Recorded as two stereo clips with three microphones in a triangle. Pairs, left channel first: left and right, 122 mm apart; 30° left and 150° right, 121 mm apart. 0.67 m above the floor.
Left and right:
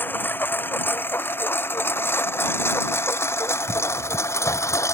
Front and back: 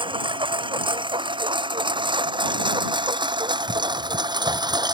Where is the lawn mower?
165° left; by 4.9 s 155° left.